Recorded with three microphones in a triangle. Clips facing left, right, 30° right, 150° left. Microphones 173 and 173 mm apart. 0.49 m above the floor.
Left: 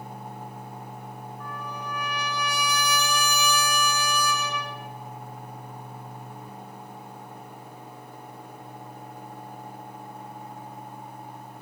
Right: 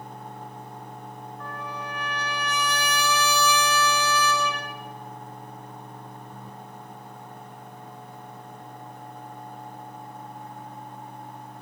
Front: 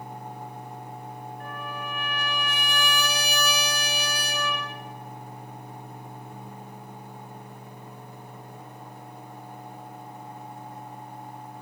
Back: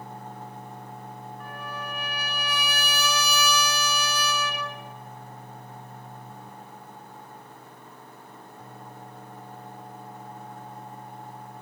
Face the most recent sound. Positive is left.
turn(degrees=15)